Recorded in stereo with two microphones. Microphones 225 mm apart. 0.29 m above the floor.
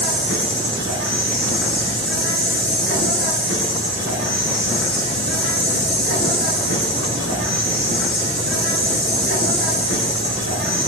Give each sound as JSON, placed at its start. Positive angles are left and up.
{"t": 0.0, "sound": "an insect", "side_deg": -65, "distance_m": 6.5}